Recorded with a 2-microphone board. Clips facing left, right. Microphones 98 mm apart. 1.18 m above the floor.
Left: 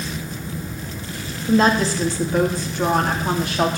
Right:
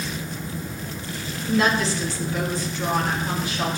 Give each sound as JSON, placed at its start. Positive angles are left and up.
{"t": 1.5, "sound": "a woman speaking", "side_deg": 35, "distance_m": 2.5}